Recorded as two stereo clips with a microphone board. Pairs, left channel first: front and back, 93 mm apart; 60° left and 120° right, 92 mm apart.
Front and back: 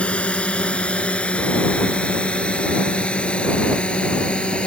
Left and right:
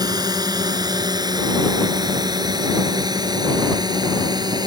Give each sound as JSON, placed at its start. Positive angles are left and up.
{"t": 0.0, "sound": "a drone", "azimuth_deg": -75}